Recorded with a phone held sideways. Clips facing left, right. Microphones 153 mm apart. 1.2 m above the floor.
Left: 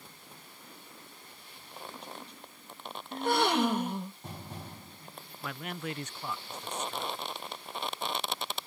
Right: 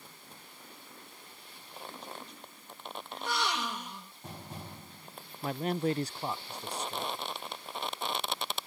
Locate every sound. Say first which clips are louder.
3.1 s a gasp: left 8 dB; 55° left (ahead or behind)
5.4 s a man speaking: right 8 dB; 35° right (ahead or behind)